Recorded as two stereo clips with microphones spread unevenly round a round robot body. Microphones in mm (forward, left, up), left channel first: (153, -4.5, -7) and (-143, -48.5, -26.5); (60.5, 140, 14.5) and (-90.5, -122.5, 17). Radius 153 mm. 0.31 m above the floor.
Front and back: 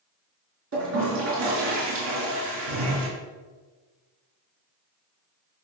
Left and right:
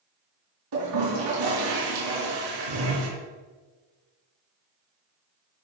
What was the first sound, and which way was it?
A toilet flushing, 125° right.